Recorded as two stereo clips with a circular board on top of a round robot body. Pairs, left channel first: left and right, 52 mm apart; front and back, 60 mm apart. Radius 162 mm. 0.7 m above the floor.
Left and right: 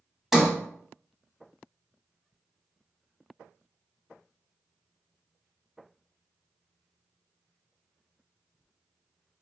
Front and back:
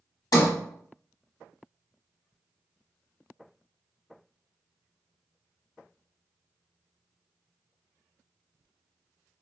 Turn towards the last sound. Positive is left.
turn(degrees=-5)